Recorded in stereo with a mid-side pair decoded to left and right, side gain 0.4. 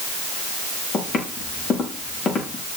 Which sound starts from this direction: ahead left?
Footsteps, at 0.9 s.